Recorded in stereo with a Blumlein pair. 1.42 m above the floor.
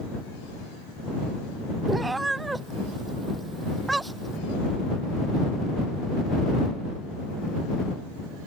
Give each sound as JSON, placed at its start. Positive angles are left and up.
{"t": 1.9, "sound": "a cat meowing", "azimuth_deg": -10}